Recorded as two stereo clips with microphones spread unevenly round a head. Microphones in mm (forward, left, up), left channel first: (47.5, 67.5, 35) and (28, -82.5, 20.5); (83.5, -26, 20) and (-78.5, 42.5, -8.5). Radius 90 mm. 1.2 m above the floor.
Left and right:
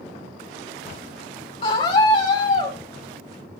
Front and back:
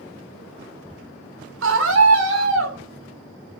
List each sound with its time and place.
1.6 s a scream: 145° left, 3.5 m